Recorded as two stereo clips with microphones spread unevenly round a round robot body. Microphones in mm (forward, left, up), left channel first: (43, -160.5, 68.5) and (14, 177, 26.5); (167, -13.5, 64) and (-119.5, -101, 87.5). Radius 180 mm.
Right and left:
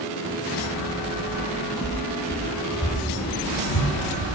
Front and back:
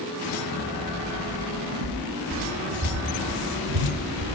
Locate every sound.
1.3 s footsteps: straight behind, 1.6 m; by 4.2 s 140° right, 3 m